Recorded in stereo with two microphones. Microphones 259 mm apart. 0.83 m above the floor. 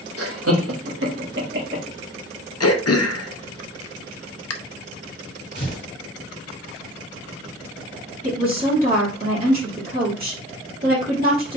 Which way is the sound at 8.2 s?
35° right (ahead or behind).